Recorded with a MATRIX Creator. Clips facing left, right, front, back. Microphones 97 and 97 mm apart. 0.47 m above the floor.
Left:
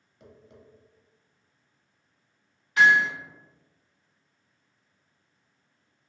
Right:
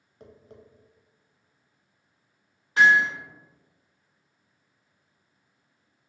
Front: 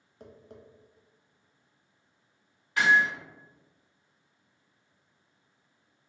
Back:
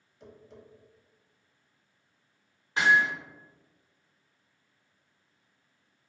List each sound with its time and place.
0.2 s tapping: 35° right, 0.5 m
2.8 s hammering: 130° right, 1.3 m